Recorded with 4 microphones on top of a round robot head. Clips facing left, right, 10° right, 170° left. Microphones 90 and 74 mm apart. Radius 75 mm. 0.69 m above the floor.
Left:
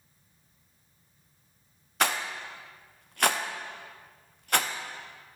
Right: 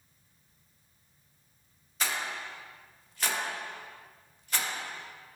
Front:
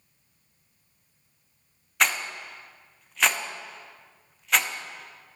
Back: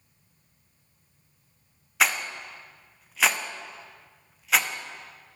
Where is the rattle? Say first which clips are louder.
Left 5 dB, even; 80° left, 0.5 m.